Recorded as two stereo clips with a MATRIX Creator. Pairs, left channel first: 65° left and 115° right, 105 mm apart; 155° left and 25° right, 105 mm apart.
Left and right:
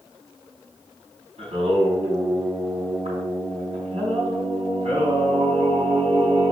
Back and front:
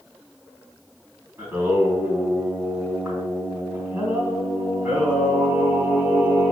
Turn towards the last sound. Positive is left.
turn(degrees=-95)